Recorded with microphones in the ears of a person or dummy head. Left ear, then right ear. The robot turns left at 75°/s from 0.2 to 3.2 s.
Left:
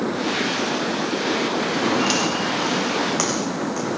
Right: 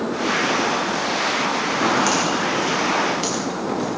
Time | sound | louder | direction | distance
1.8 | footsteps | right 2 dB | 50° right (ahead or behind) | 7.5 m